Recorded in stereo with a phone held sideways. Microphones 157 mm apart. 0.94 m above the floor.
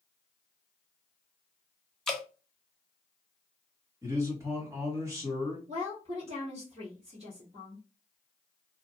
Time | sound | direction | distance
2.1 | dripping | 5° left (ahead or behind) | 0.6 m
4.0 | a man speaking | 20° right (ahead or behind) | 1.6 m
5.7 | a woman speaking | 40° right (ahead or behind) | 1.0 m